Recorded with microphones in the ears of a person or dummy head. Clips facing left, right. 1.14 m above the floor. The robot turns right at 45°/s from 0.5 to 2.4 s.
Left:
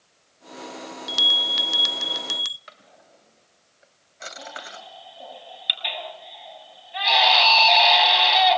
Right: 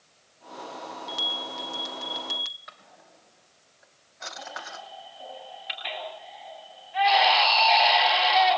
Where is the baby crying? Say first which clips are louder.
Even; 50° left (ahead or behind), 8.5 m.